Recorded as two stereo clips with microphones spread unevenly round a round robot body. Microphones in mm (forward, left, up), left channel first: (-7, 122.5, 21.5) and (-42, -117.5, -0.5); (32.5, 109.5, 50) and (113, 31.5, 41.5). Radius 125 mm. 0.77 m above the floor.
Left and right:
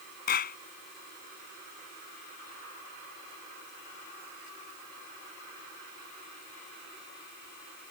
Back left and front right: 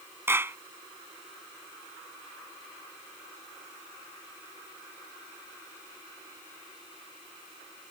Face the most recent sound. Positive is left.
turn(degrees=25)